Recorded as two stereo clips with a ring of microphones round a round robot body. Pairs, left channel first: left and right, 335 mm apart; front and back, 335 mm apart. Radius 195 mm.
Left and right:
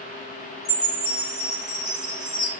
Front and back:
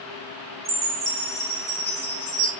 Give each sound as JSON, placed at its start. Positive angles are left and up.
{"t": 0.7, "sound": "a chime", "azimuth_deg": 115, "distance_m": 1.7}